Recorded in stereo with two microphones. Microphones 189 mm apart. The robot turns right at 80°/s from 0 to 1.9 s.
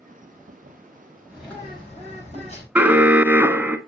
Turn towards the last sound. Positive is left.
turn(degrees=-10)  # may be behind; listen again after turning